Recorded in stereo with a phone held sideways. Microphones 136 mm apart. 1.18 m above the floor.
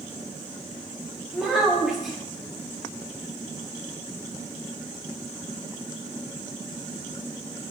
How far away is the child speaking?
About 0.7 m.